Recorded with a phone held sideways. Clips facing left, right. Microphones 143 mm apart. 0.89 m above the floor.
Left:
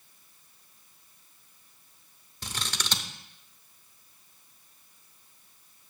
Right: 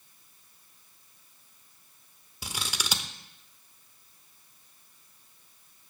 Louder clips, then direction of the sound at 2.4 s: Even; 10° right (ahead or behind).